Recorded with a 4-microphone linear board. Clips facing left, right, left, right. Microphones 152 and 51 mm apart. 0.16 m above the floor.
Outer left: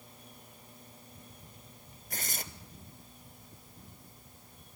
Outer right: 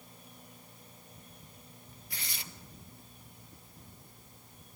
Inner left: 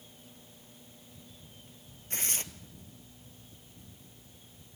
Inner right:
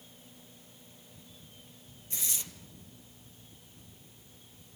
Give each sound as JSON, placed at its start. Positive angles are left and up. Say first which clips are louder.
{"t": 2.1, "sound": "tearing paper", "louder": "outer left 6 dB, inner left 4 dB", "side_deg": 45, "distance_m": 0.9}